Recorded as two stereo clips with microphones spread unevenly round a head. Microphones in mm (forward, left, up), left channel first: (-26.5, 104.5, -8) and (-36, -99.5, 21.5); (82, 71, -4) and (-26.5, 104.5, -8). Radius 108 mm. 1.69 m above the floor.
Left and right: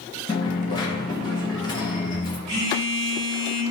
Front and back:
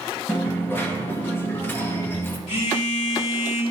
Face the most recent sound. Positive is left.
turn(degrees=-30)